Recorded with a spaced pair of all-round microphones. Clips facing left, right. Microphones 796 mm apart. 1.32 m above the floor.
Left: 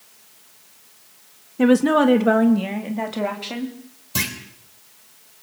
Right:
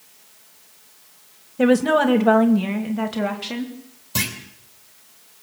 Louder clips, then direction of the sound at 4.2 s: Even; 5° right (ahead or behind).